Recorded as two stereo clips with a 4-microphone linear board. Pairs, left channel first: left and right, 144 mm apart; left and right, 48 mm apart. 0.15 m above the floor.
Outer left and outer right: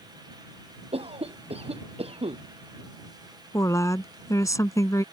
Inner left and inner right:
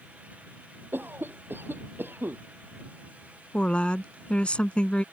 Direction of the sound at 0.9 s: 45° right (ahead or behind).